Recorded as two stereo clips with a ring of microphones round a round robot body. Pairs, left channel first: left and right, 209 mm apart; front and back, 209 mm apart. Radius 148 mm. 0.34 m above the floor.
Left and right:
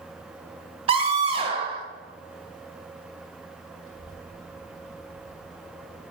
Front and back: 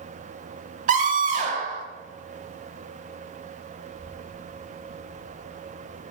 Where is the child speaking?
35° right, 7 m.